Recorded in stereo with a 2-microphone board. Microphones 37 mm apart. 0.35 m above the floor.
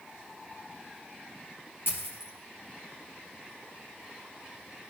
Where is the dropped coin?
75° left (ahead or behind), 2.5 m.